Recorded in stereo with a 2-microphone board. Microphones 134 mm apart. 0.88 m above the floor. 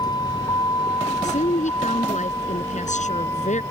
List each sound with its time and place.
0.0 s a vehicle: 30° left (ahead or behind); by 3.7 s 20° left (ahead or behind)
1.2 s a woman speaking: 65° left (ahead or behind)